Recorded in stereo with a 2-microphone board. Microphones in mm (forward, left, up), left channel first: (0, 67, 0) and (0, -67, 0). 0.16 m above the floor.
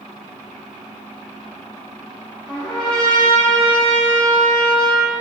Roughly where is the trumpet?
Centre.